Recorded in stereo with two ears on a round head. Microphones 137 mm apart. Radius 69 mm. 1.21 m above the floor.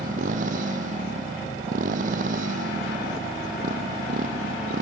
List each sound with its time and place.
0.0 s a motorcycle: 55° right (ahead or behind)